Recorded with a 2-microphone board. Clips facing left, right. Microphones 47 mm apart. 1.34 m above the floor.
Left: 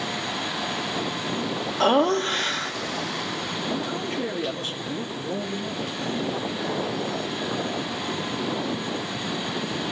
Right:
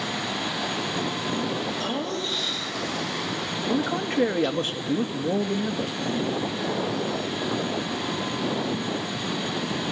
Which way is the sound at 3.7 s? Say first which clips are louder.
Right 6 dB; 55° right (ahead or behind).